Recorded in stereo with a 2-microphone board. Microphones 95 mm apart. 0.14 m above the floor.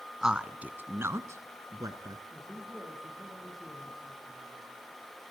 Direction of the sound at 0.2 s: 5° right (ahead or behind).